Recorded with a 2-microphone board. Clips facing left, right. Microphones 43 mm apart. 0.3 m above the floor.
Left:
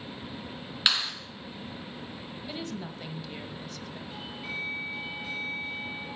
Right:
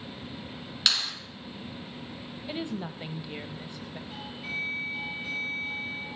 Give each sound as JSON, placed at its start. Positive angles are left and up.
{"t": 0.9, "sound": "a clap", "side_deg": 15, "distance_m": 3.0}
{"t": 2.5, "sound": "a woman speaking", "side_deg": -20, "distance_m": 1.1}
{"t": 4.1, "sound": "a doorbell", "side_deg": 0, "distance_m": 7.5}